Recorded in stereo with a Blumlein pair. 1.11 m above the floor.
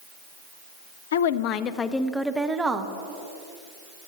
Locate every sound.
1.1 s a woman speaking: 65° left, 0.5 m; by 2.9 s 15° right, 1.0 m